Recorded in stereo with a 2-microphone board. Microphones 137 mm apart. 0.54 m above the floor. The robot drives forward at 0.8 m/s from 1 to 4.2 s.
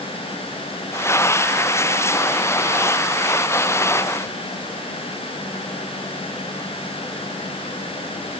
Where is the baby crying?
I don't hear a baby crying.